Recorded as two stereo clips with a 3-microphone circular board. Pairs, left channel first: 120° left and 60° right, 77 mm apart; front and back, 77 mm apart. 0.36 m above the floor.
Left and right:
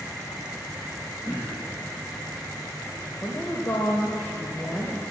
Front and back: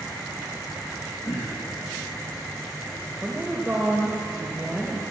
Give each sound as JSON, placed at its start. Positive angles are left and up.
{"t": 1.2, "sound": "throat clearing", "azimuth_deg": 55, "distance_m": 3.0}
{"t": 3.2, "sound": "a woman speaking", "azimuth_deg": 115, "distance_m": 1.2}